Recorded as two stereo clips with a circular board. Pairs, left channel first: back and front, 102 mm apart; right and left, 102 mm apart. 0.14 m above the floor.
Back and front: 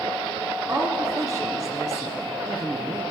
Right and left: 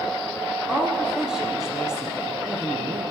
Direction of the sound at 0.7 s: 15° left.